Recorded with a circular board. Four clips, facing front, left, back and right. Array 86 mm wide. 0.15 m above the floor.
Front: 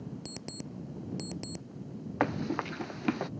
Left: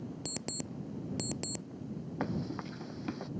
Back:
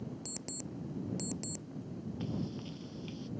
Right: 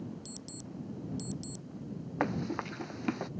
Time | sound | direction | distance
0.2 | an alarm clock | 75° left | ?
2.2 | running footsteps | 20° right | ?